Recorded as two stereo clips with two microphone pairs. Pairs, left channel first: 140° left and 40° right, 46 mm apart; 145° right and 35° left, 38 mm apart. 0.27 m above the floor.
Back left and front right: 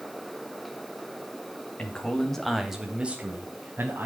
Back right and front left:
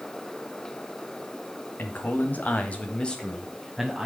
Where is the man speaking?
160° right, 1.6 m; by 4.1 s 45° right, 1.6 m.